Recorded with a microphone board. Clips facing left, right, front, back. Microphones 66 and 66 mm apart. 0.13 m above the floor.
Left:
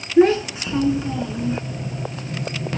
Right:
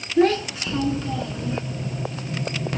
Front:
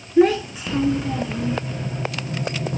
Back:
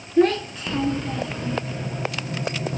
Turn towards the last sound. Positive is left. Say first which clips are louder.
# left 4 dB, front 3 dB
turn(degrees=65)